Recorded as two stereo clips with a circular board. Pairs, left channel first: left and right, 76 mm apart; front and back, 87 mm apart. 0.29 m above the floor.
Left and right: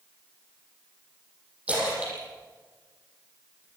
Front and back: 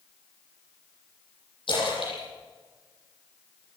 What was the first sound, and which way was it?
A splash, 20° right.